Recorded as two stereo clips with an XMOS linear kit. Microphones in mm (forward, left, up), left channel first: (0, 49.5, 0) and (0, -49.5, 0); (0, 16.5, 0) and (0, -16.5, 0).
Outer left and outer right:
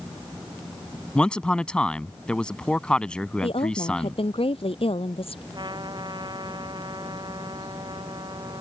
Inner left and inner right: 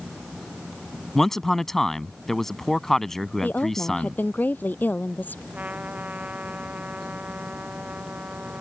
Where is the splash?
I don't hear a splash.